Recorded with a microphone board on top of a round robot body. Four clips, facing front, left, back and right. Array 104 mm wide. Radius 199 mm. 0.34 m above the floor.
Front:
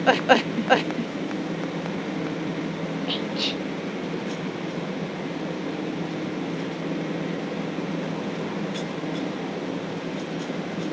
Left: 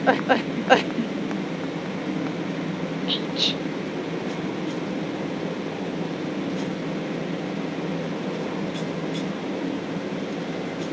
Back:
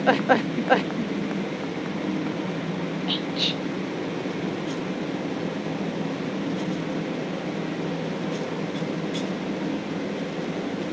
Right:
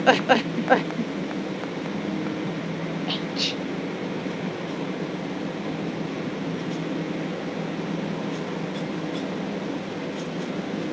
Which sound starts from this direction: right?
Whispering, at 3.1 s.